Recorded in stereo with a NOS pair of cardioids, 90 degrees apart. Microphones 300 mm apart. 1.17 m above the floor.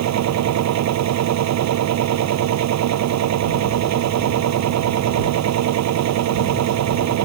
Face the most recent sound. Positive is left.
turn(degrees=-70)